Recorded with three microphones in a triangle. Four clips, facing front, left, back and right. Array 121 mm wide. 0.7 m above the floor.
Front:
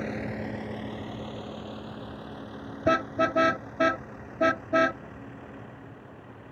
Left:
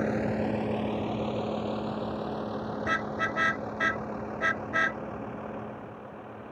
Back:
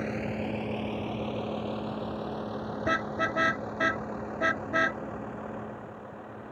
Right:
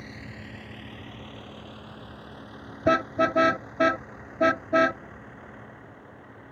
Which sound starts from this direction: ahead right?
A car horn, at 2.9 s.